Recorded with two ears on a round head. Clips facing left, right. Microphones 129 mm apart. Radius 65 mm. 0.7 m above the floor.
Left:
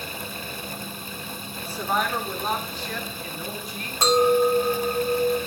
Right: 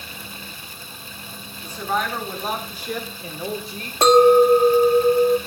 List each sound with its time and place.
1.6 s a woman speaking: 10° left (ahead or behind), 2.5 m; by 3.9 s 30° right (ahead or behind), 2.5 m
4.0 s a clink: 50° right (ahead or behind), 0.7 m